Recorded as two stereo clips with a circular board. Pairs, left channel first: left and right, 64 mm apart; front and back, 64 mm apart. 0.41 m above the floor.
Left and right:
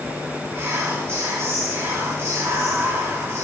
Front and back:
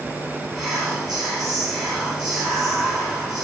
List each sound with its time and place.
0.5 s whispering: 90° right, 1.4 m